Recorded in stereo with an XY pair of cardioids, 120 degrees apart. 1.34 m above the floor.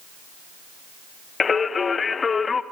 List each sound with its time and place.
1.4 s singing: 30° left, 0.9 m